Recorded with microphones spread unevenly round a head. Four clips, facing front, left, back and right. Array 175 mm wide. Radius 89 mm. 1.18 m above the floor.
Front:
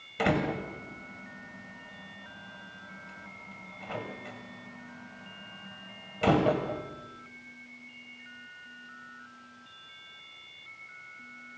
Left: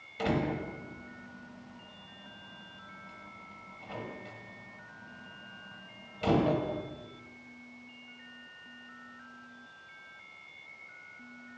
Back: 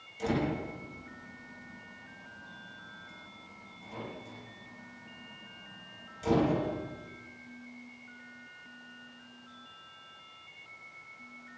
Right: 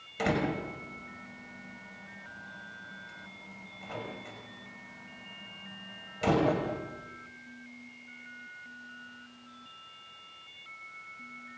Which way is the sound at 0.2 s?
15° right.